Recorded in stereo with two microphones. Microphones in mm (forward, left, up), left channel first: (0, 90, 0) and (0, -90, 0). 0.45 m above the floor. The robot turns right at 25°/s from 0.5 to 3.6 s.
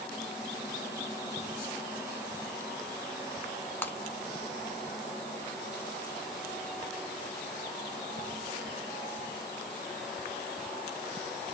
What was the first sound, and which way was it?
Breaking glass, 10° left (ahead or behind).